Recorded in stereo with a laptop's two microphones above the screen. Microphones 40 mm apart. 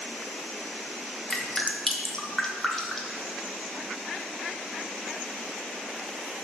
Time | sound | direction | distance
1.3 | dripping | 10° left (ahead or behind) | 1.5 m